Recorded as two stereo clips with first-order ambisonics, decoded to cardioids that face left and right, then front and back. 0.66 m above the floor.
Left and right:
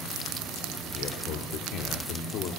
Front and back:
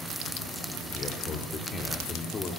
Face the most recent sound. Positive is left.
turn(degrees=65)